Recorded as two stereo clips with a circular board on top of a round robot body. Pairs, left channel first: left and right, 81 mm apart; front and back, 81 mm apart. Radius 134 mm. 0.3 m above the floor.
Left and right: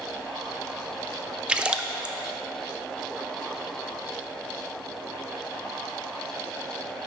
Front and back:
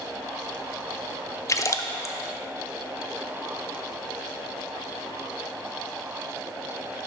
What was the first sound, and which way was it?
A splash, 20° right.